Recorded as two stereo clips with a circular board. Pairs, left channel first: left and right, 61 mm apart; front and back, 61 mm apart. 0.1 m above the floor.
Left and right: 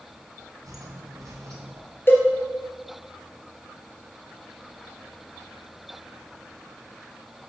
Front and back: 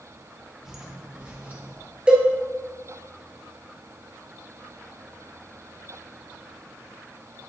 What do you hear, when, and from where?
0.6 s footsteps: 100° right, 2 m; by 1.8 s 120° right, 2.5 m
2.1 s a cowbell: 110° left, 1.5 m